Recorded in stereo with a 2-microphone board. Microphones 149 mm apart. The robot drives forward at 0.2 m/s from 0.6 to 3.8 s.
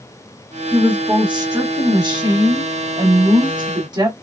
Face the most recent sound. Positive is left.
turn(degrees=-30)  # may be behind; listen again after turning